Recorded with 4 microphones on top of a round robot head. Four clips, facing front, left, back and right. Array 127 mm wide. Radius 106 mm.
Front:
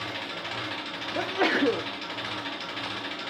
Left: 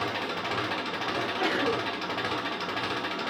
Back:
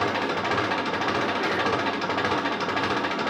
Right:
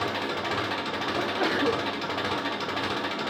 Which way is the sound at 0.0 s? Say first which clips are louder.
Right 2 dB, back 11 dB; 170° right.